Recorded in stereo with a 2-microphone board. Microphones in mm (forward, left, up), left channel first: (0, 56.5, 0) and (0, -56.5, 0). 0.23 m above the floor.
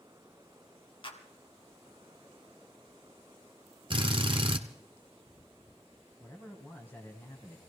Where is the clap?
50° left (ahead or behind), 1.8 m.